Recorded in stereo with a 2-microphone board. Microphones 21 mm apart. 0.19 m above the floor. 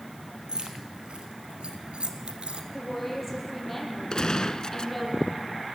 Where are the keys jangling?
50° right (ahead or behind), 3.5 m; by 2.6 s 60° right (ahead or behind), 1.7 m.